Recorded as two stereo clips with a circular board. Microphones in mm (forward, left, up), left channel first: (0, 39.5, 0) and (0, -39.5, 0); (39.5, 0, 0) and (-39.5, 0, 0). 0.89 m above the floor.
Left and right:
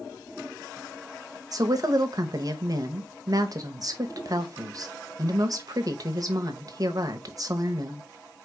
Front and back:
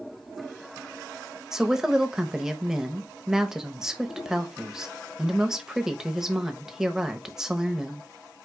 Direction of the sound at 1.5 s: 100° right.